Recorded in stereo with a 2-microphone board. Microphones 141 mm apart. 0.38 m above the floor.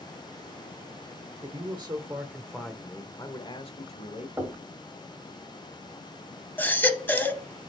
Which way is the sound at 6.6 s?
15° left (ahead or behind).